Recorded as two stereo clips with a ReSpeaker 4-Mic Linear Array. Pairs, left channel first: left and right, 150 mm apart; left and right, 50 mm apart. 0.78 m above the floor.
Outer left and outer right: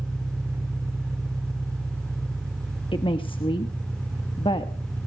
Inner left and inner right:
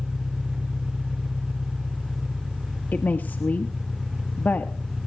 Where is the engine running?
20° right (ahead or behind), 1.8 m.